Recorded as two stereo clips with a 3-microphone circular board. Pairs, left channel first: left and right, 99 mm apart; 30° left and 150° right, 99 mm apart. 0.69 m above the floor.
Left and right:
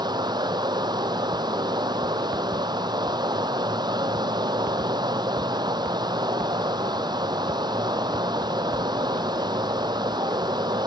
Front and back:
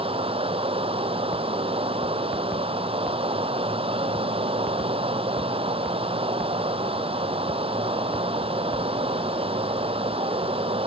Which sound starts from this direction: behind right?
Running water, at 0.0 s.